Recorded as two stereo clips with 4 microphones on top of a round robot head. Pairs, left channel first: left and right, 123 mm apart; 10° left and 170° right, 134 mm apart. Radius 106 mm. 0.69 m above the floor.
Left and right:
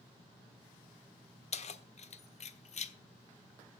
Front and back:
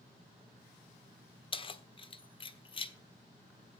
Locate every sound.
1.5 s keys jangling: 60° left, 1.2 m